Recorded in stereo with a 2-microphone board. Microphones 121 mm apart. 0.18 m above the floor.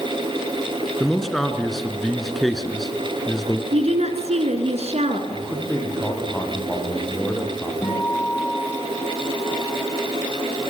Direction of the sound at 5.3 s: 10° left (ahead or behind).